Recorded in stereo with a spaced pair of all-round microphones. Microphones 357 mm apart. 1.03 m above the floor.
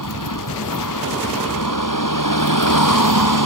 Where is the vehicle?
65° left (ahead or behind).